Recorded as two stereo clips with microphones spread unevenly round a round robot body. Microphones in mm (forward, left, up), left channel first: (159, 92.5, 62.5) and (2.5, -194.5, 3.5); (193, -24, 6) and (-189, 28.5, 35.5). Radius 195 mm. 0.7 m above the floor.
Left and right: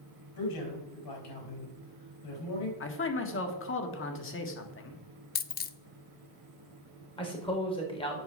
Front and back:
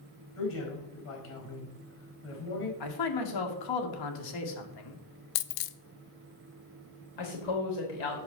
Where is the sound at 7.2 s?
15° right, 3.5 m.